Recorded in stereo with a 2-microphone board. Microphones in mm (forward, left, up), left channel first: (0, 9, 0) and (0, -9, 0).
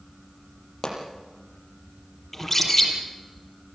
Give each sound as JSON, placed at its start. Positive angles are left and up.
{"t": 0.8, "sound": "a pop", "side_deg": 35, "distance_m": 6.0}
{"t": 2.3, "sound": "a bird", "side_deg": 10, "distance_m": 5.0}